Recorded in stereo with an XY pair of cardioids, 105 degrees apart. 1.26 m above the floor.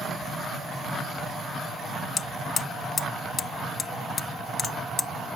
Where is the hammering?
50° left.